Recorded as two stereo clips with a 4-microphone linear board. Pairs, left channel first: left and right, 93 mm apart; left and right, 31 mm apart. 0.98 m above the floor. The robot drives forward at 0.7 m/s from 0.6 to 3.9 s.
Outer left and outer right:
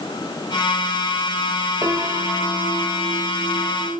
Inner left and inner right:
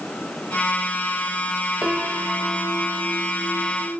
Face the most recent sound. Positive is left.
turn(degrees=-70)  # may be behind; listen again after turning